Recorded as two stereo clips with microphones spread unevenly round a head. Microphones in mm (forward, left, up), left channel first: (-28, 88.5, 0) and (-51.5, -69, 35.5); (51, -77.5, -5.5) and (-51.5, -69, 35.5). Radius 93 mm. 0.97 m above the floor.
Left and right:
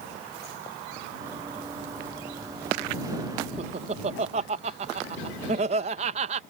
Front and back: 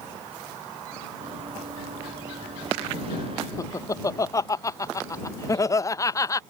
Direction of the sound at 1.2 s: 165° right.